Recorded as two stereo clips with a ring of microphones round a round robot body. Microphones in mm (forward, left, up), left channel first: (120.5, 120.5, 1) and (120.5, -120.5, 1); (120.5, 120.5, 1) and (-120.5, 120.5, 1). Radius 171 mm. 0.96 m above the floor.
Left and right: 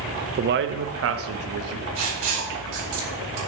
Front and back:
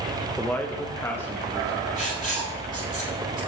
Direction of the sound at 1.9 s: 100° right.